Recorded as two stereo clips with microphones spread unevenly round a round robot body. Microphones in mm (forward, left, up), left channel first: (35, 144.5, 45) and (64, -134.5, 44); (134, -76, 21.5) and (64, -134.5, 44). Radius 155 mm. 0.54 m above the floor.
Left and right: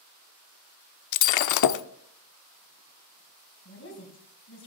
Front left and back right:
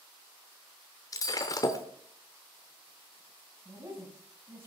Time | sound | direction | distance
1.1 | breaking glass | 85° left | 0.6 m
3.6 | a woman speaking | 150° left | 3.5 m